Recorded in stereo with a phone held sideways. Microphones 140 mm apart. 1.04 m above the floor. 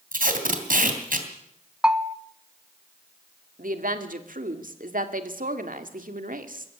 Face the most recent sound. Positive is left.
turn(degrees=-75)  # may be behind; listen again after turning